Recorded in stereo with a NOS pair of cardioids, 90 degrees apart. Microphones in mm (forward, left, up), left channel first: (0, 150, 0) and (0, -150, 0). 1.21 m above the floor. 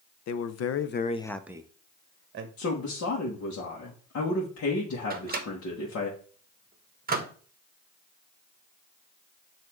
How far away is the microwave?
About 1.1 m.